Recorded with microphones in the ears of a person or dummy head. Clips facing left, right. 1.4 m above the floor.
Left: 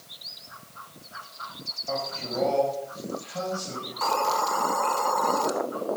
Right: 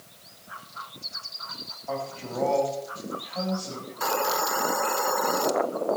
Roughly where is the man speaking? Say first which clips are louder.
Left 1 dB; left.